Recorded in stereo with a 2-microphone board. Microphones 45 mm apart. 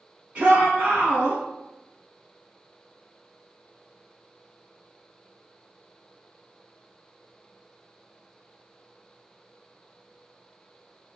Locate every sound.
0.3 s a shout: 35° right (ahead or behind), 1.2 m